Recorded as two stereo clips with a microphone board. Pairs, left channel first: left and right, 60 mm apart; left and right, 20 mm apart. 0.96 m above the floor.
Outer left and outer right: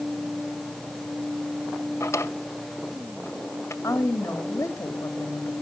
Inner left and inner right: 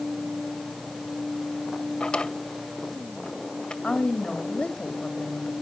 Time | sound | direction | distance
2.0 | a drawer | 55° left (ahead or behind) | 1.9 m
3.8 | a woman speaking | 70° left (ahead or behind) | 2.5 m